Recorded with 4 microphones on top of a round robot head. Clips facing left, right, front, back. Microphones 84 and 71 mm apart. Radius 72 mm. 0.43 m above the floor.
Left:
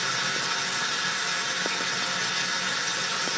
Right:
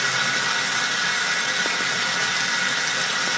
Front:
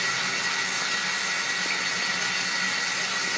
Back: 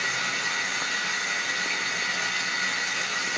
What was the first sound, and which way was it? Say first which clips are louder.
Running water: right 6 dB, even; 90° right.